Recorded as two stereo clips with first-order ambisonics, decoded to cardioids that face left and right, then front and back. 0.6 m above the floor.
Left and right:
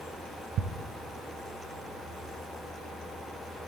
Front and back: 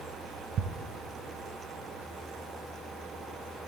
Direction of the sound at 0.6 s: 135° right.